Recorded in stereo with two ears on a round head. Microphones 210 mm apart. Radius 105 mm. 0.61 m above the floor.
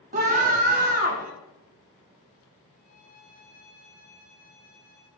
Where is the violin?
40° left (ahead or behind), 6.5 m.